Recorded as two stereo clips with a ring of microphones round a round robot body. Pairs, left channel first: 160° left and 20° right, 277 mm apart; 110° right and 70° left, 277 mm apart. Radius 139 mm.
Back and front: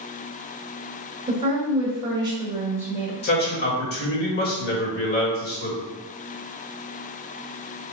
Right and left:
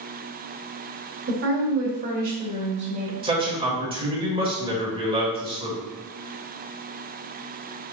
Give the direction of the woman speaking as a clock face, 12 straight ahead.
11 o'clock.